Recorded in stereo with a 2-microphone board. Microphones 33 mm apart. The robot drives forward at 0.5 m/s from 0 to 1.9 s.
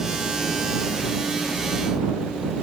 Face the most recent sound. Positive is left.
No sound to turn to.